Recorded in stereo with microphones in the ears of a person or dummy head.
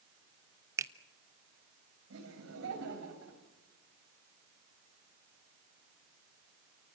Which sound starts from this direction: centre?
A finger snap, at 0.8 s.